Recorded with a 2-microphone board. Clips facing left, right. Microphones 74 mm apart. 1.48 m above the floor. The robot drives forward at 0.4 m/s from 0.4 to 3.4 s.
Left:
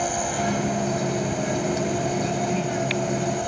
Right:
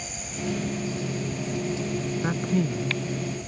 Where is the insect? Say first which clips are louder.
Left 10 dB; 75° left (ahead or behind); by 3.5 s 85° left.